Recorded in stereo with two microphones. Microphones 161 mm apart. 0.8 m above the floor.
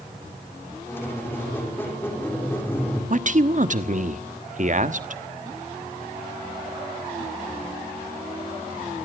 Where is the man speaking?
50° right (ahead or behind), 1.2 m.